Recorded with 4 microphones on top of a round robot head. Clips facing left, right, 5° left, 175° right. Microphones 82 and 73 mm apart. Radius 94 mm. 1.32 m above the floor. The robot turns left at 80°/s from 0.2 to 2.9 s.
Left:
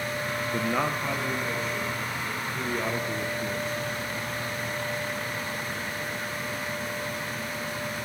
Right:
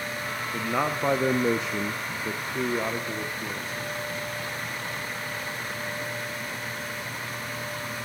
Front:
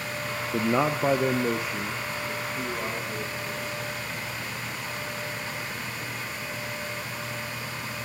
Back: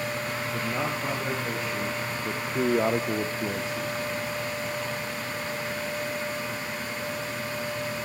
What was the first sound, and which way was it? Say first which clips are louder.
A man speaking: right 1 dB, front 8 dB; 15° left.